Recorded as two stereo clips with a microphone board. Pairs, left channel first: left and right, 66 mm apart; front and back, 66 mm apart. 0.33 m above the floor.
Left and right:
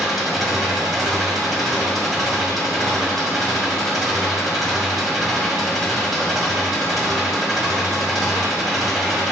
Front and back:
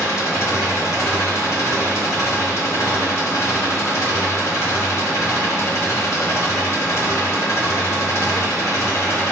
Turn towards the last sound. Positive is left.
turn(degrees=0)